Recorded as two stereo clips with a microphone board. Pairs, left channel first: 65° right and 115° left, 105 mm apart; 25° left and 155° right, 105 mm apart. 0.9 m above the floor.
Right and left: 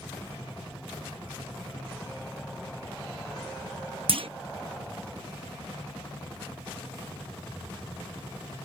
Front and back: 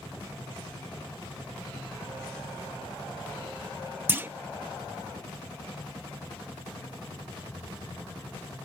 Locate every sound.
4.1 s a clunk: 135° left